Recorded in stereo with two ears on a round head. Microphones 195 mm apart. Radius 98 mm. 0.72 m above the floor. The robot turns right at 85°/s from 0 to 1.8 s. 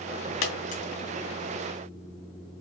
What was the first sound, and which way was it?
A dropped coin, 65° left (ahead or behind).